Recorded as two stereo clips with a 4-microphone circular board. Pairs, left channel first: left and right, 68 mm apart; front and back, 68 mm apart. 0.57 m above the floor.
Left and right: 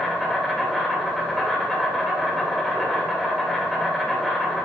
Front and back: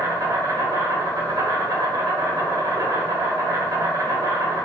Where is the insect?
Straight behind, 1.1 m.